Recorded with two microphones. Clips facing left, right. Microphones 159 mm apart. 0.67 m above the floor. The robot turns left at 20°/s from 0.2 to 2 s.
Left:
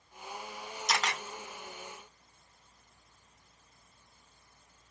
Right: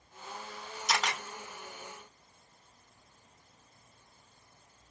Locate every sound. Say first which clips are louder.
0.9 s a camera shutter: right 1 dB; 5° right (ahead or behind), 2 m; by 1.2 s 10° right (ahead or behind), 2 m